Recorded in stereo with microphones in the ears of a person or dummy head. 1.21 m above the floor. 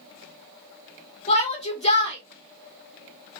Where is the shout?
35° left (ahead or behind), 1.2 m.